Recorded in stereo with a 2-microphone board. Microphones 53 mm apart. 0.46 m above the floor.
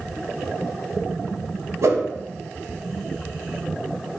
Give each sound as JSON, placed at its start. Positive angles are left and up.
{"t": 1.8, "sound": "a whoosh", "side_deg": -70, "distance_m": 0.6}